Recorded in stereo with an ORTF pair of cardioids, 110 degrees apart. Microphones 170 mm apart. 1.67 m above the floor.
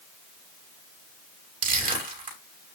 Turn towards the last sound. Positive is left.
turn(degrees=-55)